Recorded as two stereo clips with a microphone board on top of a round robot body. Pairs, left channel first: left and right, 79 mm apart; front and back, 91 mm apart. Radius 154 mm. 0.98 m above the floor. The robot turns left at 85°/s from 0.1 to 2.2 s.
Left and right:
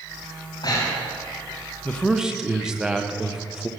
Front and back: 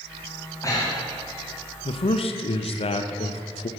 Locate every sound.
0.5 s breathing: 70° left, 3 m; by 1.2 s 10° left, 3 m
1.9 s a man speaking: 20° left, 0.9 m; by 3.7 s 10° right, 0.9 m